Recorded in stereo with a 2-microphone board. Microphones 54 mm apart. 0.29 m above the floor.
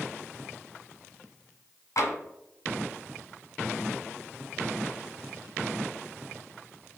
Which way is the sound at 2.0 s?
70° left (ahead or behind).